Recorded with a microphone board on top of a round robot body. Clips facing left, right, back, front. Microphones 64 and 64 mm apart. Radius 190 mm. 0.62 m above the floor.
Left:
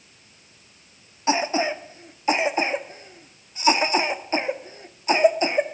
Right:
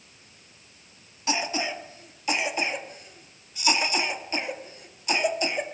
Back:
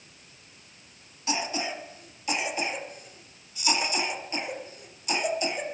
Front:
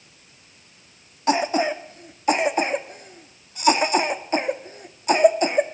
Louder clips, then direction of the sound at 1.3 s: Left 6 dB, front 10 dB; 35° left.